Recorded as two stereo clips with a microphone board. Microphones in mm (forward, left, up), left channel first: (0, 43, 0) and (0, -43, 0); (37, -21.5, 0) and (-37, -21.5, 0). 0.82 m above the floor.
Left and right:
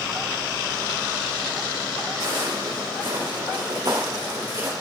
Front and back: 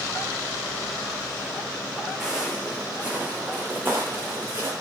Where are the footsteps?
100° right, 3 m; by 4.7 s 130° right, 3.5 m.